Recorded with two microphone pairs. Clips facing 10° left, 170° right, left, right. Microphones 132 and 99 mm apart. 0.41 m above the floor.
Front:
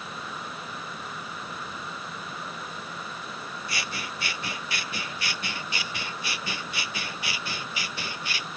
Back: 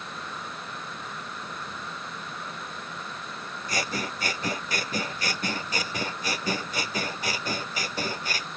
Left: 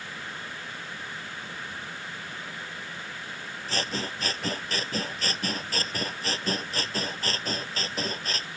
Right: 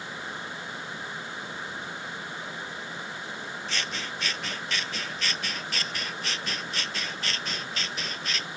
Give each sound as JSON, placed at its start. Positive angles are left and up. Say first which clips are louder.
{"t": 3.7, "sound": "scissors", "louder": "back 8 dB, left 6 dB", "azimuth_deg": 140}